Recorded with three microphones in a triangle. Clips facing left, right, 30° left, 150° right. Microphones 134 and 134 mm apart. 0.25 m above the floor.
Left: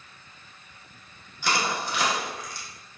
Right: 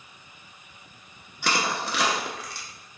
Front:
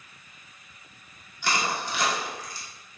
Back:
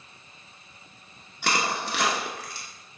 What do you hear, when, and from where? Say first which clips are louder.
1.4 s crushing: even, back 1 dB; 120° right, 0.7 m